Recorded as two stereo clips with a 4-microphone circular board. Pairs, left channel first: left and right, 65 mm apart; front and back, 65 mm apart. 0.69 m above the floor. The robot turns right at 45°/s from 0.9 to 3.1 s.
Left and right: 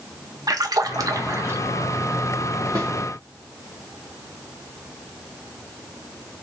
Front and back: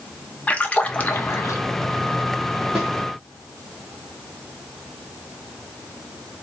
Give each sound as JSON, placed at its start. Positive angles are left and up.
{"t": 0.5, "sound": "a splash", "azimuth_deg": -70, "distance_m": 0.7}
{"t": 2.8, "sound": "a snare drum", "azimuth_deg": -105, "distance_m": 2.5}